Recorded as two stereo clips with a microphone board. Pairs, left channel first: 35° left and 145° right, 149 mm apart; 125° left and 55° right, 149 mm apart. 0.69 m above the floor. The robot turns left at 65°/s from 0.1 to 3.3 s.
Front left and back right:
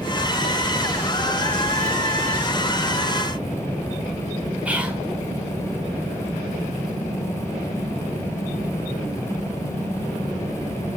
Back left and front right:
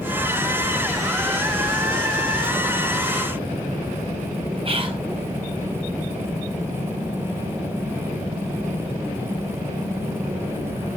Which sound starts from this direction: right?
Whispering, at 4.7 s.